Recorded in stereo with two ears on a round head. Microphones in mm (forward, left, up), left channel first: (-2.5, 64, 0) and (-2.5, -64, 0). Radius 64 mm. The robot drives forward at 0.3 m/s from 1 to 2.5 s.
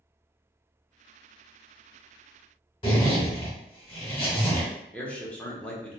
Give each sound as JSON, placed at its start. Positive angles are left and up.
{"t": 2.8, "sound": "a zipper", "side_deg": 35, "distance_m": 1.0}
{"t": 4.9, "sound": "a man speaking", "side_deg": 10, "distance_m": 0.7}